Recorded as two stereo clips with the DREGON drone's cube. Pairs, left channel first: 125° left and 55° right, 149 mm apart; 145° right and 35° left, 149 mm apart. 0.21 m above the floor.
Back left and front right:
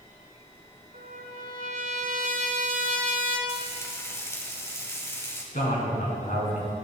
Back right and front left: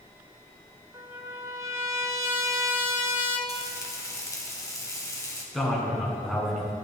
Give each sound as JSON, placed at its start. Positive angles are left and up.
{"t": 0.9, "sound": "a trumpet", "azimuth_deg": -35, "distance_m": 1.2}
{"t": 3.5, "sound": "frying", "azimuth_deg": 175, "distance_m": 1.5}
{"t": 5.5, "sound": "a man speaking", "azimuth_deg": 125, "distance_m": 3.0}